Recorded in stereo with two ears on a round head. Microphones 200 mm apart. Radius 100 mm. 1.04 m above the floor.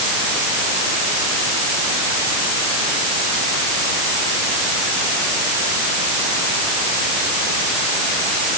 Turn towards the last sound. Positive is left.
No sound to turn to.